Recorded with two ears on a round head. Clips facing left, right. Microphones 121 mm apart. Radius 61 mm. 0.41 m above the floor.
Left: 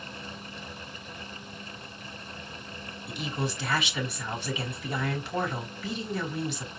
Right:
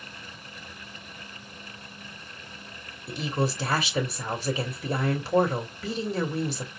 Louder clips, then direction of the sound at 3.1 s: Right 5 dB; 35° right (ahead or behind).